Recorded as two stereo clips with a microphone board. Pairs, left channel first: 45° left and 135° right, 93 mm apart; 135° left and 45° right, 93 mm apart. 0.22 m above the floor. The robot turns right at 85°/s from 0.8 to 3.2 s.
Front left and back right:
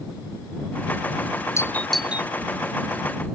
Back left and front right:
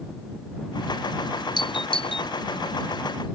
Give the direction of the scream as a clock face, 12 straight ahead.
I don't hear a scream.